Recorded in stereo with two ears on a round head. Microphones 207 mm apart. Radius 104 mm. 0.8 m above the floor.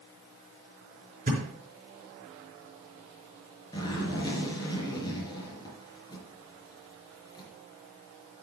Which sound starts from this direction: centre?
A zipper, at 3.7 s.